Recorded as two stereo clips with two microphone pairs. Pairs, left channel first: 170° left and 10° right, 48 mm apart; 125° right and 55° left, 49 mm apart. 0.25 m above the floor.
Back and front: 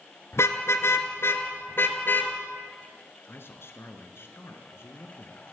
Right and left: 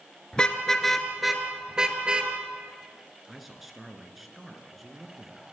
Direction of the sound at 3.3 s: 145° left.